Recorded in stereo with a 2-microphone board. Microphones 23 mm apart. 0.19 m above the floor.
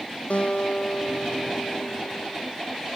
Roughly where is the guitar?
Left.